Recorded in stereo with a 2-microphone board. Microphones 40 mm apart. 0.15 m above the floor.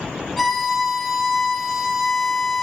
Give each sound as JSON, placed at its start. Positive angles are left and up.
{"t": 0.4, "sound": "a violin", "side_deg": 0, "distance_m": 1.5}